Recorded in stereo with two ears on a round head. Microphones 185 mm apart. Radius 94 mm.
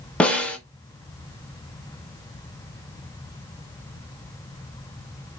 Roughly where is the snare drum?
Centre.